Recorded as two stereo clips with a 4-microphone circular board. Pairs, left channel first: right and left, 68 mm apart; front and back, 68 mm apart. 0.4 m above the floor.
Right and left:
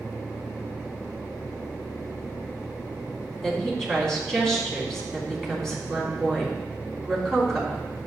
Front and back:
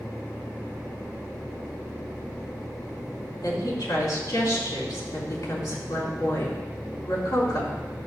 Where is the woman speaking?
5° right, 3.5 m.